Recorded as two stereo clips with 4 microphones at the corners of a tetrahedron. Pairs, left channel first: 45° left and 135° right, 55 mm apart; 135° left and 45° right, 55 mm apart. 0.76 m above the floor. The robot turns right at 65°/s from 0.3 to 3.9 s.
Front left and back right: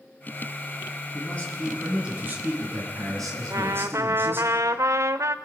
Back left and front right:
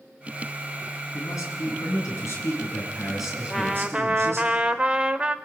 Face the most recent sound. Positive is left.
turn(degrees=-115)